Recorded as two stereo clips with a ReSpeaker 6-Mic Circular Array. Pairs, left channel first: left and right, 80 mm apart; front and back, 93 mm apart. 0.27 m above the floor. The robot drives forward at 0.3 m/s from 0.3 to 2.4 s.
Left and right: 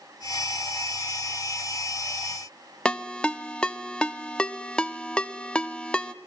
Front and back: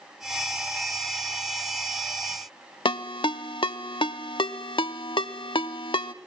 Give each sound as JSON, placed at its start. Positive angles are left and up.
{"t": 2.9, "sound": "a ringtone", "azimuth_deg": 10, "distance_m": 0.7}